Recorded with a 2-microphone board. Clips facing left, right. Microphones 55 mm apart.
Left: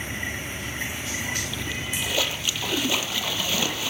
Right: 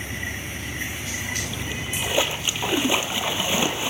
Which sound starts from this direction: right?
A splash, at 1.4 s.